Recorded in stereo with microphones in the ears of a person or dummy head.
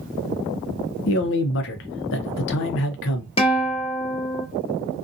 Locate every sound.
1.1 s a man speaking: 65° left (ahead or behind), 0.6 m
3.4 s a guitar: 25° left (ahead or behind), 0.5 m